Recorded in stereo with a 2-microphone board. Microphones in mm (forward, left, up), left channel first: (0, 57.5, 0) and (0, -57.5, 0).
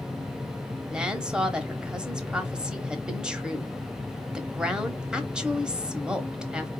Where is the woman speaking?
10° right (ahead or behind), 1.1 m.